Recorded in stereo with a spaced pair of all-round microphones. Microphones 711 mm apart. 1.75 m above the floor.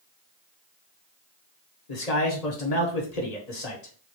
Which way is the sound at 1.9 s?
60° left (ahead or behind).